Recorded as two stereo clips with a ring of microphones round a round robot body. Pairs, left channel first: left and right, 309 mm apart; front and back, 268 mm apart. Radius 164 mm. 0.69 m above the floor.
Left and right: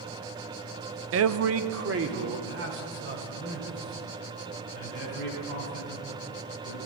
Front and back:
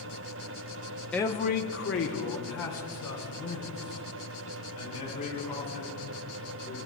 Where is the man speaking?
85° right, 0.6 m; by 6.9 s 30° right, 7.5 m.